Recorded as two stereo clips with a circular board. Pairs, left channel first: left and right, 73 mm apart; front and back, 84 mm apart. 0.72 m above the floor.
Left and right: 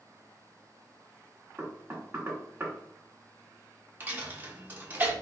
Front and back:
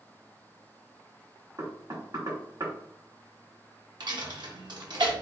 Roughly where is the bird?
No bird in this recording.